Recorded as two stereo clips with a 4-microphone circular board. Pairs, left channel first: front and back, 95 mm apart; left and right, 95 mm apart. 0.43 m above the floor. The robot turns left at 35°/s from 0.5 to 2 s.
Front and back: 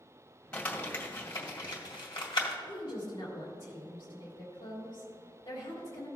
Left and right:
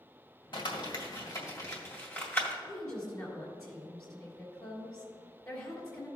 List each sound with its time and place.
0.5 s crumpling: 75° left, 2 m; by 2.5 s 25° left, 2 m
2.6 s a woman speaking: 40° left, 2.5 m